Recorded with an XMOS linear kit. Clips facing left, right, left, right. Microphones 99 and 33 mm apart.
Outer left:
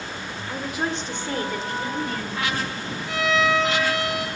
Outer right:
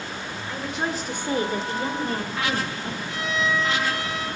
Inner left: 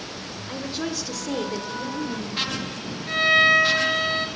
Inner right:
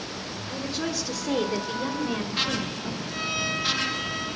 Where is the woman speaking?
10° left (ahead or behind), 1.5 m; by 3.0 s 40° right (ahead or behind), 3 m.